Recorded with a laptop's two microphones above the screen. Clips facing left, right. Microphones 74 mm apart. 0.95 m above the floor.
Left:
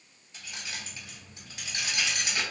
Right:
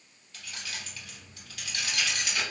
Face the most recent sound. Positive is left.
turn(degrees=20)  # may be behind; listen again after turning